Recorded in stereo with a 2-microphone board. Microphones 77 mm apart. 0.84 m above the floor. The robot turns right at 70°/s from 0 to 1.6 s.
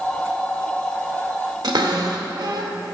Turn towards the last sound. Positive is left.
turn(degrees=-65)  # may be behind; listen again after turning